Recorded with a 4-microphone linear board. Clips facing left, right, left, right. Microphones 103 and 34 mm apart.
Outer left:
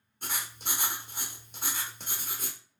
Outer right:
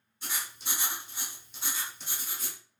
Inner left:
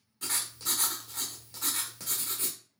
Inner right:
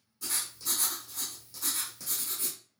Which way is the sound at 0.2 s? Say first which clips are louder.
Outer left 2 dB, inner left 2 dB; 50° left (ahead or behind).